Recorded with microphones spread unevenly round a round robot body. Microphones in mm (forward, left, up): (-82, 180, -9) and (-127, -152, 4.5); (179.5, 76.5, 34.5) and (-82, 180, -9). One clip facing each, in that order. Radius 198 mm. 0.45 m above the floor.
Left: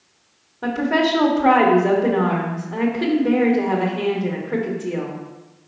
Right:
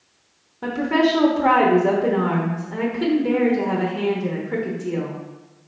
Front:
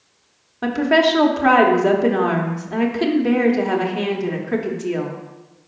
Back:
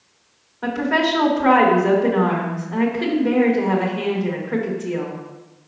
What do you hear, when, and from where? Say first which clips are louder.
0.6 s a woman speaking: right 1 dB, front 3 dB; 25° right, 1.0 m